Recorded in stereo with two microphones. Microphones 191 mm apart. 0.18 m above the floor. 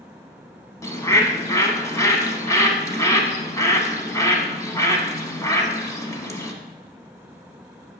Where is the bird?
15° left (ahead or behind), 0.8 m.